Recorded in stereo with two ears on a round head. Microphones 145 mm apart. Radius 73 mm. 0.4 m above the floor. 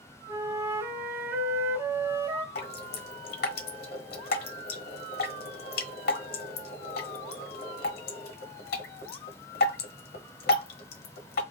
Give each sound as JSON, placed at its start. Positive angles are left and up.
{"t": 0.3, "sound": "a flute", "side_deg": -15, "distance_m": 0.7}
{"t": 2.5, "sound": "dripping", "side_deg": 65, "distance_m": 1.1}